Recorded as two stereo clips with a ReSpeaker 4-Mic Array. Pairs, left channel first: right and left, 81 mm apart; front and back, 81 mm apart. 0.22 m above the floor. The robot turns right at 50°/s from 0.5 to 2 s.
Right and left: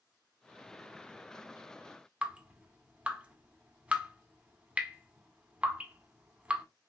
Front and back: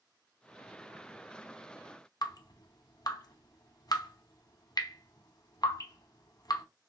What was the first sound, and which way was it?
Dripping, 20° left.